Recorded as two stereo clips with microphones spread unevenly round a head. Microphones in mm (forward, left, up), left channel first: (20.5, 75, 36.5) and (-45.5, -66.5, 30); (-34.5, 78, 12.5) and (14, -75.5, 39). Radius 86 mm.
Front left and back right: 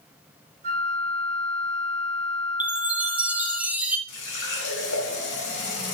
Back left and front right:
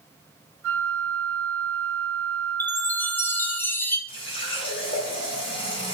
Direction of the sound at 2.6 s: 170° left.